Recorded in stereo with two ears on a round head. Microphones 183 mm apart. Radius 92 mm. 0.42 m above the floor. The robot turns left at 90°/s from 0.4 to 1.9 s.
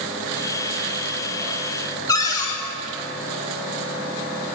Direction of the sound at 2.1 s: 15° left (ahead or behind).